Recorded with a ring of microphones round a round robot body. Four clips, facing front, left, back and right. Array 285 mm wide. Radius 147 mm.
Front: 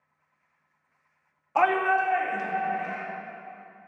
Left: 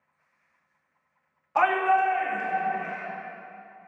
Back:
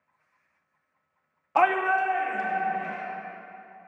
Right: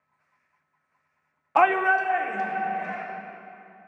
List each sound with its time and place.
1.6 s a shout: 115° right, 0.6 m; by 3.0 s 80° right, 2.5 m